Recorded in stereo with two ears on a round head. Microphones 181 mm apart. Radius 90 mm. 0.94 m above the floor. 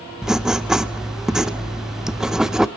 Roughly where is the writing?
Centre.